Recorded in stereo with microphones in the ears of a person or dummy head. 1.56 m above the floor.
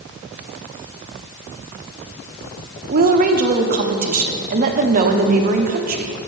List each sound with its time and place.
2.9 s a woman speaking: 45° right (ahead or behind), 0.9 m